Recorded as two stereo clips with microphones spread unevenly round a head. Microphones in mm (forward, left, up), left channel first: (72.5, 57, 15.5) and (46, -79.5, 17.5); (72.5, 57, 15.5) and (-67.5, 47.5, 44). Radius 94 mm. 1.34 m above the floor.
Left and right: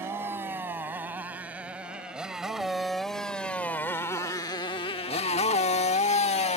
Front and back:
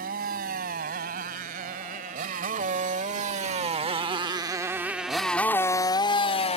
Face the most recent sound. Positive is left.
turn(degrees=50)